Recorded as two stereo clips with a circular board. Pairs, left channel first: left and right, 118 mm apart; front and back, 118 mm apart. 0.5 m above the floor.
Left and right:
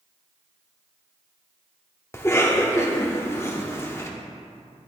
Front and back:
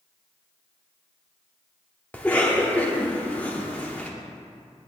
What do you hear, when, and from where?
2.1 s a cough: 60° left, 0.7 m